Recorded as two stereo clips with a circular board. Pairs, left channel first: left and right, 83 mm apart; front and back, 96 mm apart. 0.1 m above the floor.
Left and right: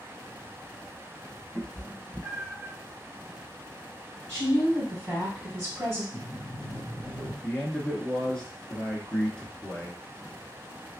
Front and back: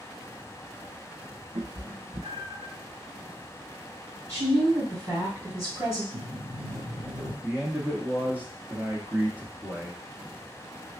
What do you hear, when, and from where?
1.6 s a cat meowing: 165° right, 0.8 m
4.3 s a woman speaking: 135° right, 2.5 m
6.1 s a sliding door: 150° left, 1.9 m
7.4 s a man speaking: 150° left, 1.1 m